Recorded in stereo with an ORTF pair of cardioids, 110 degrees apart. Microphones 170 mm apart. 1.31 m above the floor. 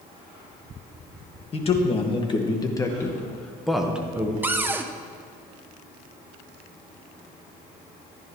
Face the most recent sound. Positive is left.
turn(degrees=-15)